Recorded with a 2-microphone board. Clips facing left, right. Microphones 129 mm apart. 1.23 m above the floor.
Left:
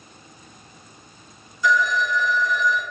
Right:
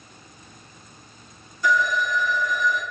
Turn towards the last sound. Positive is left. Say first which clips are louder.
# left 1 dB
turn(degrees=-55)  # may be behind; listen again after turning